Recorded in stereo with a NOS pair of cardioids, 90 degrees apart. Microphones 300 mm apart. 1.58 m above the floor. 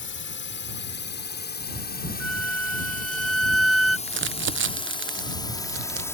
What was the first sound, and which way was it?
A drone, 40° left.